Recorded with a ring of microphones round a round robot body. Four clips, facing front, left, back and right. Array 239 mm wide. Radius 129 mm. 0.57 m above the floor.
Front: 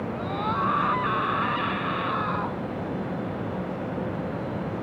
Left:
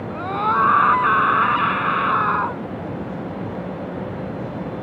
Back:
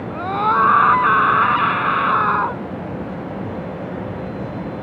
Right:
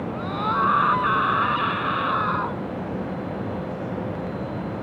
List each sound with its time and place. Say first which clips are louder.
0.1 s a scream: left 6 dB, back 12 dB; 160° left